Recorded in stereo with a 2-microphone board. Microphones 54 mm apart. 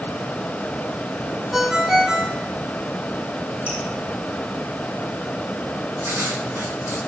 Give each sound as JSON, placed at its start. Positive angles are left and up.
{"t": 1.5, "sound": "a ringtone", "side_deg": -5, "distance_m": 1.2}
{"t": 3.7, "sound": "dripping", "side_deg": -20, "distance_m": 9.5}
{"t": 6.0, "sound": "writing", "side_deg": -65, "distance_m": 4.0}